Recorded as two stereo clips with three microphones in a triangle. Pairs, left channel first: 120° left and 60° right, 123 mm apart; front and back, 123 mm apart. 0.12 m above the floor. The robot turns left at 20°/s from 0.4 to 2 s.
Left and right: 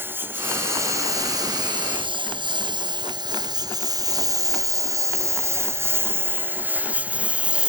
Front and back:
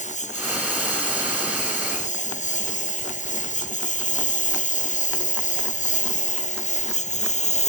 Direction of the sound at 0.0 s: 10° left.